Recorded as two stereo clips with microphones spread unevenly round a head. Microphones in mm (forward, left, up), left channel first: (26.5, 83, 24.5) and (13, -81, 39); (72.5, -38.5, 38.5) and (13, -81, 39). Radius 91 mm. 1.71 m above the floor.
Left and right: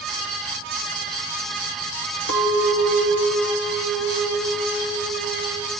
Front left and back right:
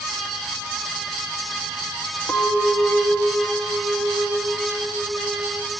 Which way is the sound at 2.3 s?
120° left.